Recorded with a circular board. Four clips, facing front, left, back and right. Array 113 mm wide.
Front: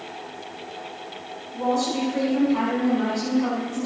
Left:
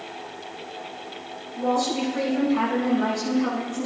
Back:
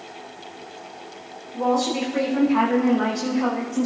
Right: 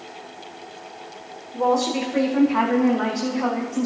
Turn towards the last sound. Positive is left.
turn(degrees=-120)